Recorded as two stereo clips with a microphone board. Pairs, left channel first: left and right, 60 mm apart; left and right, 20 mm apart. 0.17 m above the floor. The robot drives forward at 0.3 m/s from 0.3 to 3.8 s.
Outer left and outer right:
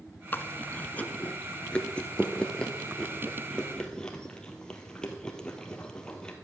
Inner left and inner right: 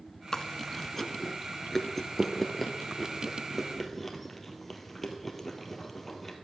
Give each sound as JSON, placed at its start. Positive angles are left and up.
{"t": 0.3, "sound": "chewing", "side_deg": 35, "distance_m": 0.6}